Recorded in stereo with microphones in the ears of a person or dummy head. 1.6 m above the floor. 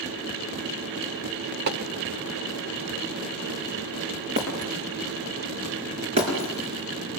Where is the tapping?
60° right (ahead or behind), 1.5 m.